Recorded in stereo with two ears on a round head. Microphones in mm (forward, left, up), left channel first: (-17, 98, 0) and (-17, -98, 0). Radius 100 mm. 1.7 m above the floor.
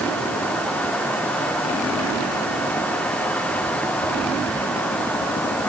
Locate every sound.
Only background noise.